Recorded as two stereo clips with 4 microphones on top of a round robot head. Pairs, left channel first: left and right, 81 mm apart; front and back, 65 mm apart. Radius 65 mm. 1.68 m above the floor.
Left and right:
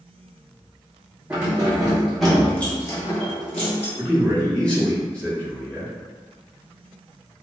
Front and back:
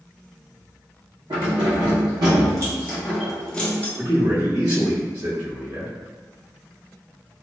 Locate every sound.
1.3 s keys jangling: 165° right, 1.4 m; by 3.9 s 60° left, 0.9 m
4.0 s a man speaking: 165° left, 1.4 m